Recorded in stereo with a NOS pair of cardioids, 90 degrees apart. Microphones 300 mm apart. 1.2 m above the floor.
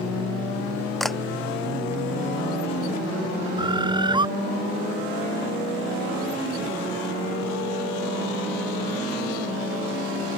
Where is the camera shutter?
Straight ahead.